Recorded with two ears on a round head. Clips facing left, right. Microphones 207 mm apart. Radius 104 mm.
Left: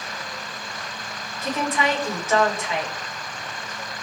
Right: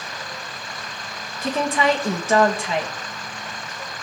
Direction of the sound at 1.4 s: 25° right (ahead or behind).